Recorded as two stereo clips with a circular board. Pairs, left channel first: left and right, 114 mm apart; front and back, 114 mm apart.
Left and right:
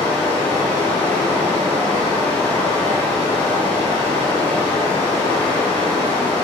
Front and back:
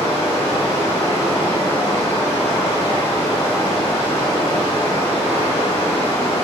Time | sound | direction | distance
0.0 | running water | 15° left | 1.8 m